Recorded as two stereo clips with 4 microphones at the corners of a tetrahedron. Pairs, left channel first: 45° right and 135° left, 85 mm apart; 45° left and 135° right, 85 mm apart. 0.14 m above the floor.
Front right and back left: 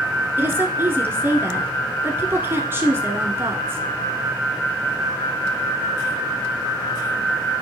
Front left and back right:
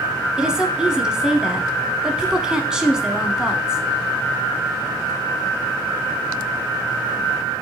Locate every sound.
0.4 s a woman speaking: 155° left, 1.2 m